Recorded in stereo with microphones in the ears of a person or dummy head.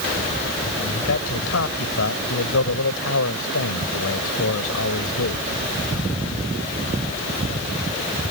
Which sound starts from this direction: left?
A man speaking, at 0.8 s.